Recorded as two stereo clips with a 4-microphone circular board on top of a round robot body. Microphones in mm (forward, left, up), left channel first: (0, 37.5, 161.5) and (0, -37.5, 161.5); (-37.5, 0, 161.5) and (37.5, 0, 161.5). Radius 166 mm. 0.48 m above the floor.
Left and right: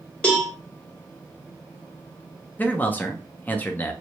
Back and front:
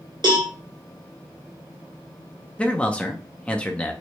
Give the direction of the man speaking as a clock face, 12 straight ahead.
8 o'clock.